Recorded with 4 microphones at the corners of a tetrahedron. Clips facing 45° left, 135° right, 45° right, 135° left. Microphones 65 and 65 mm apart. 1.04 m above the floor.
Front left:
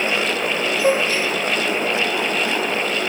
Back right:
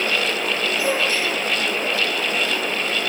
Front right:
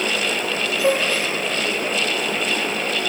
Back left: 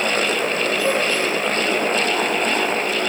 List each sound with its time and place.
0.8 s a gasp: 20° right, 7.5 m